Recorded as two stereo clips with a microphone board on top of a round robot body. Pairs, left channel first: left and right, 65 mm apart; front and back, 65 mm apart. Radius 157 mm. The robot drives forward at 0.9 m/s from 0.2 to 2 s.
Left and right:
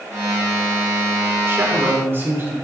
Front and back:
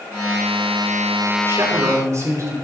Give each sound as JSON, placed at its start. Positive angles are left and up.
{"t": 1.5, "sound": "a man speaking", "azimuth_deg": -140, "distance_m": 3.5}